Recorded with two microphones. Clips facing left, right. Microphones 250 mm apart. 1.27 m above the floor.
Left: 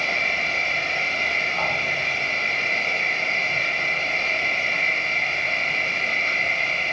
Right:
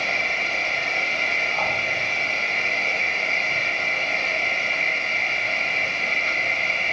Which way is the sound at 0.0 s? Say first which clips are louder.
Even; 15° right (ahead or behind).